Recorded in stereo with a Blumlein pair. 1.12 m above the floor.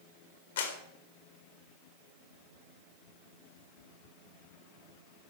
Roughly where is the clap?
Ahead left.